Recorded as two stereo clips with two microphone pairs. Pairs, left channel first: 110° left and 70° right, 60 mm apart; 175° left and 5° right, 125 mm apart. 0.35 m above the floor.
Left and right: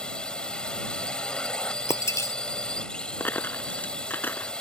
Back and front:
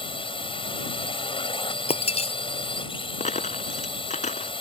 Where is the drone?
175° left.